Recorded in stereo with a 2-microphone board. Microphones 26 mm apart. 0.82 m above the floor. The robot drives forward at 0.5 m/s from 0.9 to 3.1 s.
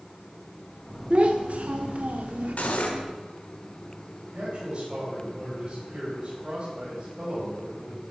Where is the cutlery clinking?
65° left (ahead or behind), 1.7 m; by 3.0 s 70° left (ahead or behind), 1.6 m.